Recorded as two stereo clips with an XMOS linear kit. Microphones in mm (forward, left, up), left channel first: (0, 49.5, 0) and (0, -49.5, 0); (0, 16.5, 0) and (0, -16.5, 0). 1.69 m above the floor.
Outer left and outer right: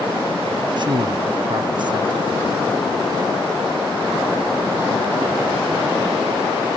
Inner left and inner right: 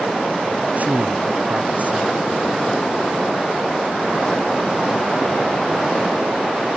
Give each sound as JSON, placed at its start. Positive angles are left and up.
{"t": 0.8, "sound": "a man speaking", "side_deg": -50}